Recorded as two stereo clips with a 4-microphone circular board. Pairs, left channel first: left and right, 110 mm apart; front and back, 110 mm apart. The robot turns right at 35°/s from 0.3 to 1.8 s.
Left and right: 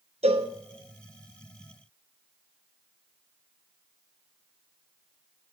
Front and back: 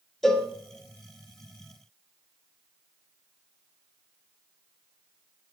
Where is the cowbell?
85° right, 0.7 m; by 0.5 s 80° right, 0.7 m.